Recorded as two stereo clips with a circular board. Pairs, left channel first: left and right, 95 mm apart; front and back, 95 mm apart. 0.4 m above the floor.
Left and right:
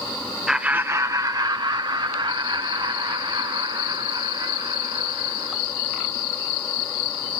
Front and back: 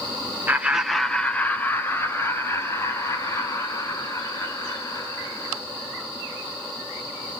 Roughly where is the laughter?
Behind.